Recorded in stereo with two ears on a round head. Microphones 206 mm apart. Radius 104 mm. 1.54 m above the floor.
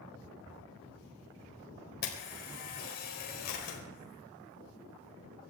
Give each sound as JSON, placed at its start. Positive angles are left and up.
{"t": 2.0, "sound": "a camera shutter", "side_deg": 45, "distance_m": 4.5}